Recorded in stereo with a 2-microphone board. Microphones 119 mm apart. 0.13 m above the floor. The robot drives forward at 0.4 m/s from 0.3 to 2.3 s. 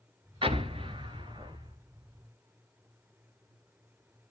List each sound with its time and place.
0.4 s an explosion: 50° right (ahead or behind), 1.0 m; by 1.8 s 35° right (ahead or behind), 1.2 m